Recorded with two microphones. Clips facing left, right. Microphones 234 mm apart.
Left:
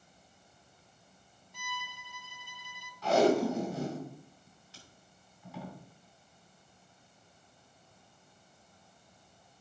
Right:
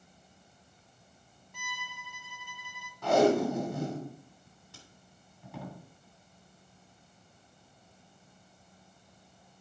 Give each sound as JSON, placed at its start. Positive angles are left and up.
{"t": 1.5, "sound": "a violin", "side_deg": -55, "distance_m": 0.7}
{"t": 3.0, "sound": "tape being pulled", "side_deg": -55, "distance_m": 2.5}